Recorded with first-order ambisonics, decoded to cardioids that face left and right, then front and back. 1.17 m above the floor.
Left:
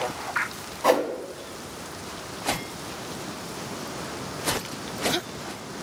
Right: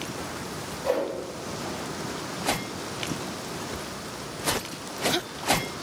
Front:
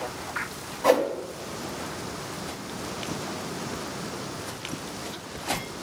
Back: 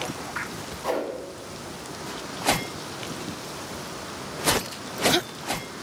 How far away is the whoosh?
About 1.0 m.